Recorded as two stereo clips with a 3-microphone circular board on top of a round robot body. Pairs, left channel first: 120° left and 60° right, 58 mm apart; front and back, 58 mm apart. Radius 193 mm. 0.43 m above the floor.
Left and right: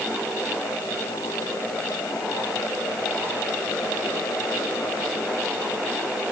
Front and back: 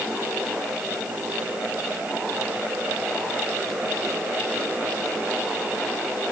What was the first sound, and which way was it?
Only background noise.